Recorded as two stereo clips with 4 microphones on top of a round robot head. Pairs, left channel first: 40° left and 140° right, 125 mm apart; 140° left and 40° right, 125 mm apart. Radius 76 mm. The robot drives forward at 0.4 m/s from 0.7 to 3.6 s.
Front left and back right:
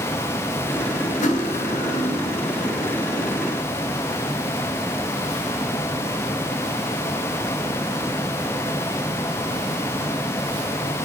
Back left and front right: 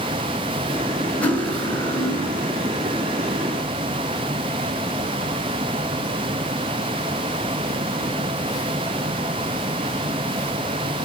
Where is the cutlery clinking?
60° left, 2 m; by 2.3 s 75° left, 1.9 m.